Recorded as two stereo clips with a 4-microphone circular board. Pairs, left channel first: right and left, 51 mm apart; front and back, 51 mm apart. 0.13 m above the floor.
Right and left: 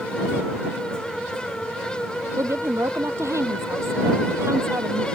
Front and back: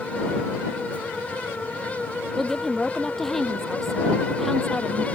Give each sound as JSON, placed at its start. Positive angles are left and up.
{"t": 2.4, "sound": "a woman speaking", "azimuth_deg": 85}